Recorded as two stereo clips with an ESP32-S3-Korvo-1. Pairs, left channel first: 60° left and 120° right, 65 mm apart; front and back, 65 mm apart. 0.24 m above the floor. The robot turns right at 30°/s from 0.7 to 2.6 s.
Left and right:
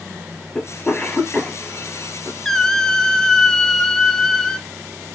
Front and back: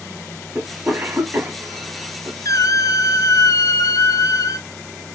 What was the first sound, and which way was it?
A cough, 120° left.